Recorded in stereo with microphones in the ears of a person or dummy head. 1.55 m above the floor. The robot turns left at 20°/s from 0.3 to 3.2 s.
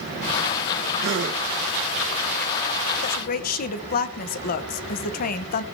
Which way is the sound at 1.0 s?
55° right (ahead or behind).